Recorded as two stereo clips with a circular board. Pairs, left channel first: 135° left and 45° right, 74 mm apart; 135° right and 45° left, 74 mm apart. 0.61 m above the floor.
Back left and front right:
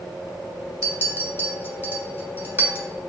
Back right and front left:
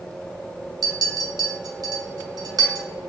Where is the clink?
15° left, 1.2 m.